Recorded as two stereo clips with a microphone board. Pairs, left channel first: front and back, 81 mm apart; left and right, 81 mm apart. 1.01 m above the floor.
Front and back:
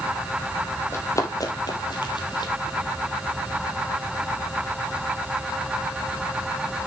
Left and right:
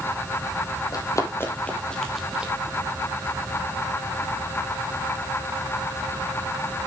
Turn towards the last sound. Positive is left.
turn(degrees=-15)